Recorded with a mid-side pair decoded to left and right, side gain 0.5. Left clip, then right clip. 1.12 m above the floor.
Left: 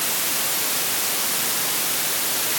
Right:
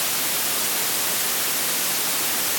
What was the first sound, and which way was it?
Only background noise.